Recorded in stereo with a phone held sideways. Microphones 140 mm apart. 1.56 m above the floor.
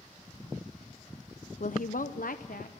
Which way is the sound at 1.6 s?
70° left (ahead or behind).